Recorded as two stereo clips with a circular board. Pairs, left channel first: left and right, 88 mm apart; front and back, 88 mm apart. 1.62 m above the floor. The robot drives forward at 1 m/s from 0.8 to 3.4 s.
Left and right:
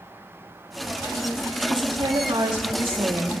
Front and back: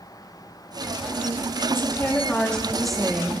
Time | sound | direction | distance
1.7 | a woman speaking | 65° right | 3 m